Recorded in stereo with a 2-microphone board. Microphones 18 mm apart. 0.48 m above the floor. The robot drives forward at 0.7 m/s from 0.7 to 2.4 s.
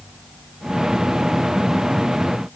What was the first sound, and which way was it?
Only background noise.